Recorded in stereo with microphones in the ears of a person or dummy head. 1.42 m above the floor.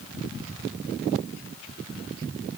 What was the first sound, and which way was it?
Only background noise.